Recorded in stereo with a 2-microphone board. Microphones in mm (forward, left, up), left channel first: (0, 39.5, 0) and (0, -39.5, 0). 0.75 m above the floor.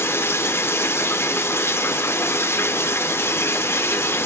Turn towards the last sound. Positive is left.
turn(degrees=35)  # may be behind; listen again after turning